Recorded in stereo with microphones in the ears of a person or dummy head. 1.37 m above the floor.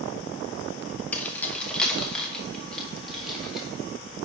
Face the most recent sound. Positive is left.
turn(degrees=0)  # may be behind; listen again after turning